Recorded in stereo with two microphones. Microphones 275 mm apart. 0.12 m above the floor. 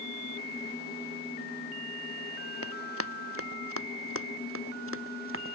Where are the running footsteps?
55° right (ahead or behind); by 5.5 s 50° right (ahead or behind).